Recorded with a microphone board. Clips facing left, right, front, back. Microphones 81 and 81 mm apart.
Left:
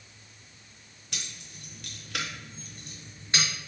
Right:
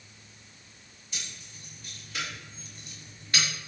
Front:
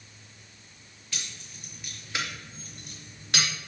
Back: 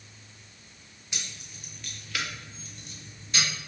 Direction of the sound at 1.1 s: 110° left.